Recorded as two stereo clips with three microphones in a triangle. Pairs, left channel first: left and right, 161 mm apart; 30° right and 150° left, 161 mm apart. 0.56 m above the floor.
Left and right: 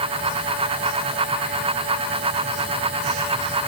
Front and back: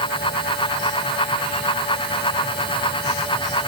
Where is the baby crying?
No baby crying in this recording.